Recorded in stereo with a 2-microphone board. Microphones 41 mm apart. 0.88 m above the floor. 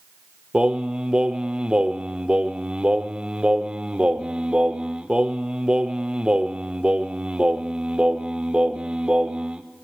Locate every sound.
0.5 s singing: 25° right (ahead or behind), 0.7 m